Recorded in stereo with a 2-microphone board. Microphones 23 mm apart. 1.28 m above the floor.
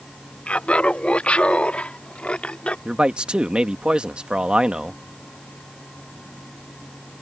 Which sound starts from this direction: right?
A man speaking, at 2.9 s.